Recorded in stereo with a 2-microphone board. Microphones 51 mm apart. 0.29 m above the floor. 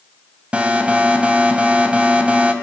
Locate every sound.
0.5 s an alarm: 20° right (ahead or behind), 2.5 m